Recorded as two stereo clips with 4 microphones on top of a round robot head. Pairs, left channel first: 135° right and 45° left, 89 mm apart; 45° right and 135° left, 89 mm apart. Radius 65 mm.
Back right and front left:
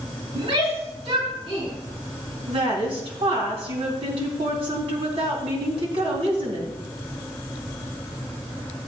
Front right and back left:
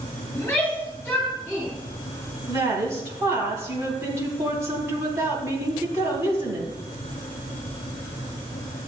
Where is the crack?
No crack in this recording.